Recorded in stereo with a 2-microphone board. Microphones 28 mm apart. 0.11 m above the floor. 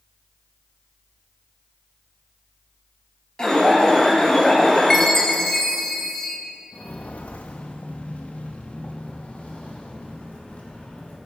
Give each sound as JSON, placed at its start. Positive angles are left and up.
{"t": 3.4, "sound": "an alarm", "side_deg": 25, "distance_m": 3.0}
{"t": 4.9, "sound": "a chime", "side_deg": 15, "distance_m": 1.4}
{"t": 6.7, "sound": "footsteps", "side_deg": 80, "distance_m": 0.8}